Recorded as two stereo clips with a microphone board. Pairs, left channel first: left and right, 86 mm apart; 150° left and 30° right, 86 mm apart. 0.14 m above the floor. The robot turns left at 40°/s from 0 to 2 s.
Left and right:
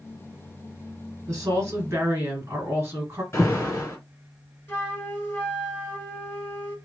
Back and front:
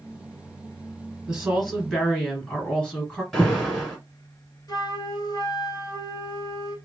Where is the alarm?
65° left, 2.0 m.